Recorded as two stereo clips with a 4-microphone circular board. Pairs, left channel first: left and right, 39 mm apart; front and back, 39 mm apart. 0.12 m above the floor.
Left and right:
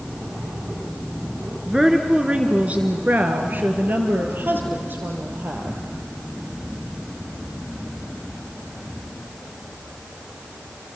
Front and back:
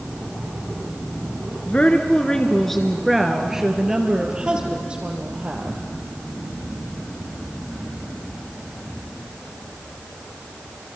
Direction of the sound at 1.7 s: 10° right.